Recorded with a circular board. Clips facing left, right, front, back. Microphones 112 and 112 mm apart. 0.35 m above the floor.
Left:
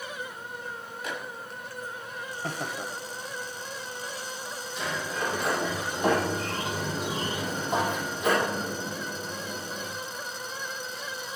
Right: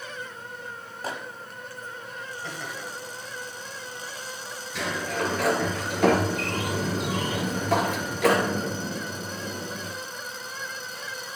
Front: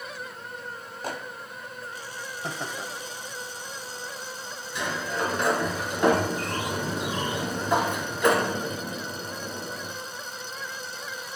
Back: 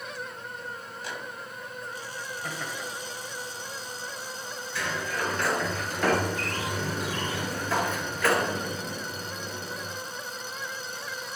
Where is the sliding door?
70° right, 3 m.